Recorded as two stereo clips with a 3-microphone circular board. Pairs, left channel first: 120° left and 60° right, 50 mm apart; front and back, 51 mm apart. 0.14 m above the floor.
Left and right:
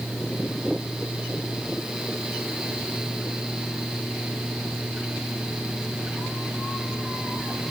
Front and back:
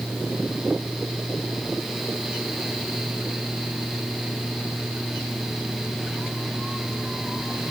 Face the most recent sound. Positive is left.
No sound to turn to.